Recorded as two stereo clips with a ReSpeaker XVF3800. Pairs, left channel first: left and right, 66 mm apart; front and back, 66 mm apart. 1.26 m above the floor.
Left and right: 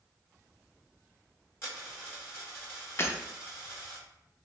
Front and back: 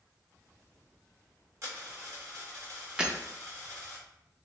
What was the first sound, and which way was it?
A dropped coin, 140° left.